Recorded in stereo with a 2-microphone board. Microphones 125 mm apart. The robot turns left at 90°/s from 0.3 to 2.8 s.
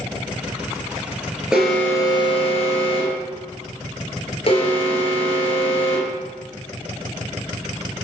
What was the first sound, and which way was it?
An alarm, 170° right.